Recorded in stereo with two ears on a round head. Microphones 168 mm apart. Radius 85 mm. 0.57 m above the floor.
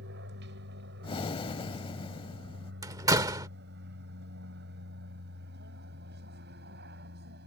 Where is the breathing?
30° left (ahead or behind).